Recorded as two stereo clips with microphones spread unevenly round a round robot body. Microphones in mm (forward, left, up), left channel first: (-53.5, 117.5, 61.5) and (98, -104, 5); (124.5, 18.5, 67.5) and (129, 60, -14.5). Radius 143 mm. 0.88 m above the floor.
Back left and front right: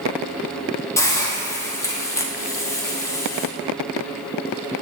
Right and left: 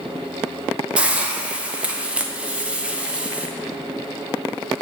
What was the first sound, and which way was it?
A hiss, 40° left.